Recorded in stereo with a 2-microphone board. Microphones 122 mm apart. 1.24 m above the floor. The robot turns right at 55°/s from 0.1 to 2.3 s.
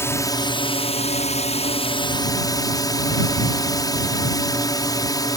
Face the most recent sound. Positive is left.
turn(degrees=145)